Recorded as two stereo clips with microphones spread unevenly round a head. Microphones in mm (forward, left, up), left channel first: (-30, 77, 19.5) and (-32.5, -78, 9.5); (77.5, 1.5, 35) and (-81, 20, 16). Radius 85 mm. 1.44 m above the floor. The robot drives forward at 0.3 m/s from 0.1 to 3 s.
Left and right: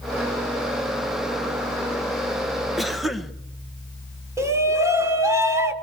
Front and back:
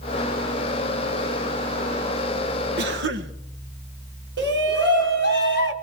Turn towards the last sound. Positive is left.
turn(degrees=-165)